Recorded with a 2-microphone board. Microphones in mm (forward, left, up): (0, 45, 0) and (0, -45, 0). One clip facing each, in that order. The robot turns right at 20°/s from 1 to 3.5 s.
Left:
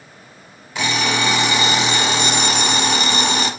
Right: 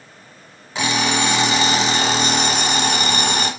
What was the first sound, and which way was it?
An alarm clock, 155° right.